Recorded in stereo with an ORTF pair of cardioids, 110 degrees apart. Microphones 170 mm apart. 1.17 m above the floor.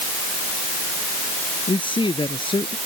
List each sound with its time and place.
1.7 s a man speaking: 30° left